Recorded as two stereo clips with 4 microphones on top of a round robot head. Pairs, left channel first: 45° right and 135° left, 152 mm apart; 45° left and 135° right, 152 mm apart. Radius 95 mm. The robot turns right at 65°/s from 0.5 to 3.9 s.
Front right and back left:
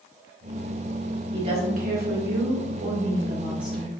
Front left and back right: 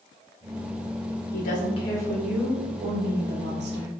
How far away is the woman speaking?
About 1.0 m.